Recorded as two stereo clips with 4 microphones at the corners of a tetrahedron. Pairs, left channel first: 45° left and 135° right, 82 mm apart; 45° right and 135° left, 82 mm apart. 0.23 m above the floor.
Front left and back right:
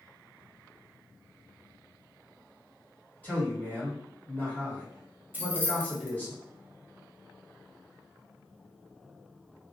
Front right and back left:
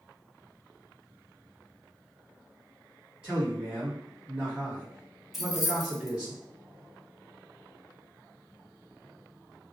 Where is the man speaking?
75° left, 1.6 m.